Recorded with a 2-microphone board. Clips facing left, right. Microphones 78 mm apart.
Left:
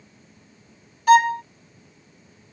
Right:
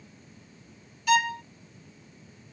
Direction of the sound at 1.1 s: 45° left (ahead or behind).